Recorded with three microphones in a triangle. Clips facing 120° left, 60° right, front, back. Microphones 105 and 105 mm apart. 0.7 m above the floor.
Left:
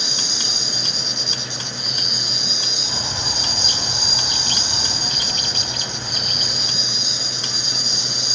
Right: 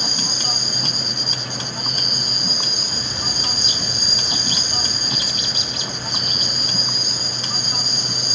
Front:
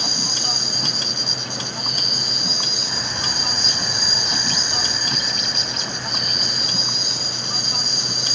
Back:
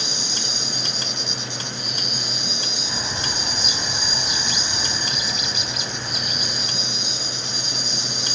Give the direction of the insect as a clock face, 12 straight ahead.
1 o'clock.